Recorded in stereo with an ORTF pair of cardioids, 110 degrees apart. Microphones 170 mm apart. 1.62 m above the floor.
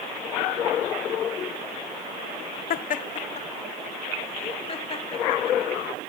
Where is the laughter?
60° left, 1.0 m; by 6.0 s 30° left, 5.5 m.